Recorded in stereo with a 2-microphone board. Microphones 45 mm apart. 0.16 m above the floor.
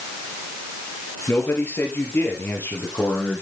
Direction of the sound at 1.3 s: 50° left (ahead or behind).